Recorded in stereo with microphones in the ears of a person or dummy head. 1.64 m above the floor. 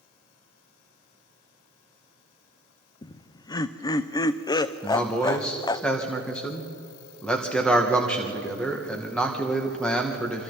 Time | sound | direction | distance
3.0 | laughter | 25° left (ahead or behind) | 0.6 m
4.8 | a man speaking | 5° left (ahead or behind) | 1.9 m